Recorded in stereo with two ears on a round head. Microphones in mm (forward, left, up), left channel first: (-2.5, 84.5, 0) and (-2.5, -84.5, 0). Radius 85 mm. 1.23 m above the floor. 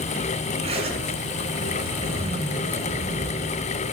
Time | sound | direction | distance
0.6 | a zipper | 30° right (ahead or behind) | 2.5 m